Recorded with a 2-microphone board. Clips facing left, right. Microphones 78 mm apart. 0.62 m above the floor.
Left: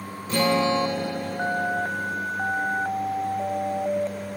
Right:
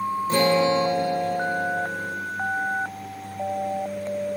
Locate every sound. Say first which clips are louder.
0.3 s a guitar: right 1 dB; 30° right (ahead or behind), 1.4 m